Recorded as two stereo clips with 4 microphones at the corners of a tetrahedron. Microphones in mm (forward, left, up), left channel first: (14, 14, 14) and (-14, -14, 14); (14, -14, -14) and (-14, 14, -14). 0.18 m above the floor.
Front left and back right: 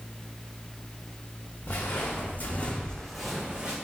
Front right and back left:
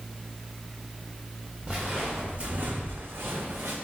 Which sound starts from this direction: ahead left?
Footsteps, at 1.7 s.